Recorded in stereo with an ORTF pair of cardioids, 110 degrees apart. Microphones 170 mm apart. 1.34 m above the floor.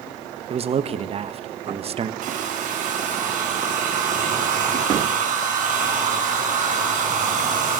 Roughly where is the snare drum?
No snare drum in this recording.